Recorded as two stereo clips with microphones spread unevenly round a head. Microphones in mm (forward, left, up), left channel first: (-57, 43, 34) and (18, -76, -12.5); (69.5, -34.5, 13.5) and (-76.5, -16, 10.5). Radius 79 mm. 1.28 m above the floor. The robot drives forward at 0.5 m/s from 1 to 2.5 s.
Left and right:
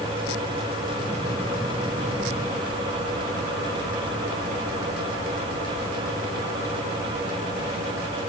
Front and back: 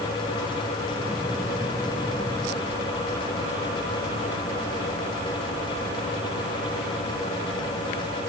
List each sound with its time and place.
Only background noise.